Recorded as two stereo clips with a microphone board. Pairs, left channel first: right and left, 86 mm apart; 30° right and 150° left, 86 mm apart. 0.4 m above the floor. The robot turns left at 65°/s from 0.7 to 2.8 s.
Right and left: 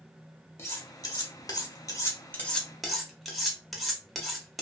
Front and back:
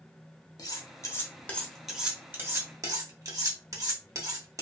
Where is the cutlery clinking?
45° right, 0.7 m; by 4.6 s straight behind, 0.7 m.